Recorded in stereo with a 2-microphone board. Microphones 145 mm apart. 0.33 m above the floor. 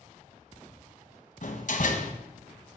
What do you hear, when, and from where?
1.4 s a door slam: 60° left (ahead or behind), 1.6 m